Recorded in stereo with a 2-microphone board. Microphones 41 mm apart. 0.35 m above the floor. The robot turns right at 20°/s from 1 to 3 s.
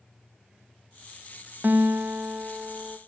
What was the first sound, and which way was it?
A guitar, 50° right (ahead or behind).